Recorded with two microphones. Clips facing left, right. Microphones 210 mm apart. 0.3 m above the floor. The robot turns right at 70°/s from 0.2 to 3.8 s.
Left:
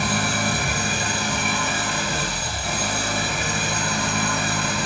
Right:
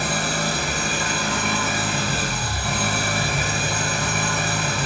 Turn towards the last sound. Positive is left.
turn(degrees=-20)